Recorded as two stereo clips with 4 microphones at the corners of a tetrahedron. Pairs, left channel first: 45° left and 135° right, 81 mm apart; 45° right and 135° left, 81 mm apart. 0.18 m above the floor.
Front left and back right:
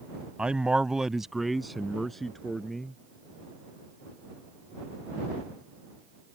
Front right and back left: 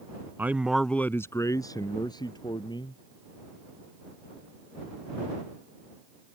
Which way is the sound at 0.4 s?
160° left.